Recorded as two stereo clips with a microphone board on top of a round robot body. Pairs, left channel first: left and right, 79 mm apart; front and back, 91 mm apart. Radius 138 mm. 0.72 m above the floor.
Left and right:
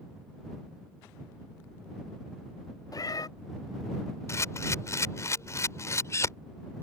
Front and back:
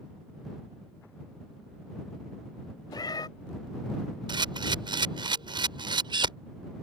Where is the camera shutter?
145° left.